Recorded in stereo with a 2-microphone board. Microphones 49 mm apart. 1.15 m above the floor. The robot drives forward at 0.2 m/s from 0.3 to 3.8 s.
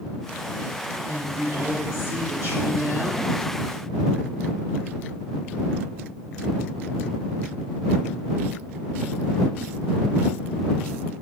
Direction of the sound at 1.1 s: 75° right (ahead or behind).